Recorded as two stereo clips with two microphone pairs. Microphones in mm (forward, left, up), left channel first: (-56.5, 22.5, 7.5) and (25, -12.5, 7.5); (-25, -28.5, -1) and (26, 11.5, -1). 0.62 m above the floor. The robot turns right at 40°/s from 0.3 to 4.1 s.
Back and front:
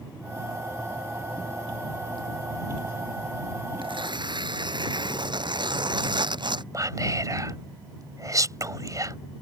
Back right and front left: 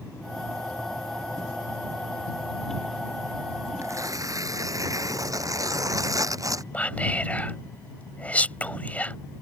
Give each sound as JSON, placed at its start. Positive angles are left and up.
{"t": 3.8, "sound": "tearing paper", "azimuth_deg": -5}
{"t": 6.7, "sound": "whispering", "azimuth_deg": -75}